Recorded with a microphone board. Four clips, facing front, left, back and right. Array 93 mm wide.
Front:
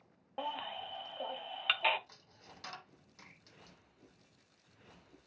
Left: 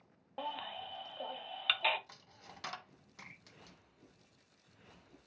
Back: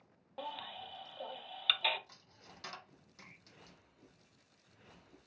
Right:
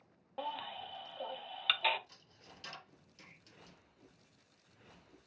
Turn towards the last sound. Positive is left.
turn(degrees=90)